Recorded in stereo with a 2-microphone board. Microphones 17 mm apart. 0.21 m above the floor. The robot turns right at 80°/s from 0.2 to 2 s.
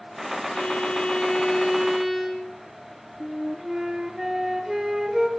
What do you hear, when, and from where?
0.5 s a violin: 70° left, 7.5 m; by 2.5 s 170° right, 7.5 m
3.2 s a flute: 25° right (ahead or behind), 4 m